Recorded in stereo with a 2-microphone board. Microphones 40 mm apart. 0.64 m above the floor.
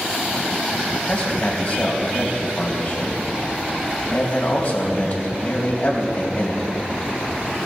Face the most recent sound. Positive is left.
turn(degrees=35)  # may be behind; listen again after turning